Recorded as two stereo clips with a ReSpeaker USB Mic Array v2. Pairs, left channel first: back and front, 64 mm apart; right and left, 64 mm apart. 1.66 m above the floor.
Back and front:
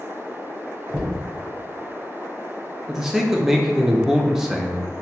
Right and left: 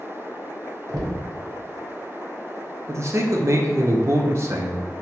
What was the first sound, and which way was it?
Knocking, 70° left.